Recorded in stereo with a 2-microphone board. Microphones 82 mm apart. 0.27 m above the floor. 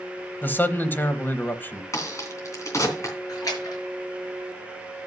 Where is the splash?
45° left (ahead or behind), 5.5 m.